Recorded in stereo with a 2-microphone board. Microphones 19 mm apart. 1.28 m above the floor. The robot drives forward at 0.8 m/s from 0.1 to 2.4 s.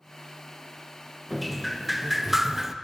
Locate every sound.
1.3 s dripping: 10° right (ahead or behind), 1.2 m; by 2.8 s 20° right (ahead or behind), 0.5 m